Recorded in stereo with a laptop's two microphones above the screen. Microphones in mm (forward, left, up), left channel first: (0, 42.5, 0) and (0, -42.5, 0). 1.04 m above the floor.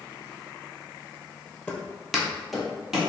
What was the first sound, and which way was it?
Footsteps, 10° left (ahead or behind).